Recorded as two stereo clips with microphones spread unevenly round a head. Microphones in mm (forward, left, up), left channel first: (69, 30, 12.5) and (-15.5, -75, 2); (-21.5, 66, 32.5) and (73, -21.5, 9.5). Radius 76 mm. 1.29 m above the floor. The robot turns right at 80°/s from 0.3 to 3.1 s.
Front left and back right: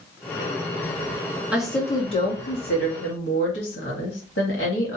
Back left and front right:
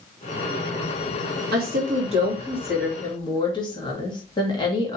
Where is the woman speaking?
50° right, 2 m; by 5.0 s 80° left, 2 m.